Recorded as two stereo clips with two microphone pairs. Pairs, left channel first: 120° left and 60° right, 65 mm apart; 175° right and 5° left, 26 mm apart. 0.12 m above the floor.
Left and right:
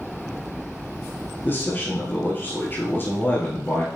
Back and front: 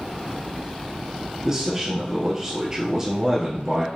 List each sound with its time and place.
1.4 s a man speaking: 70° left, 2 m